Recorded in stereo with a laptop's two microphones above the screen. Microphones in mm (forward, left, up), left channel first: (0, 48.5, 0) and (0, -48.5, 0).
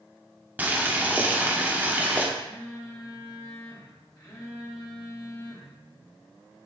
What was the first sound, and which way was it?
Boiling, 15° right (ahead or behind).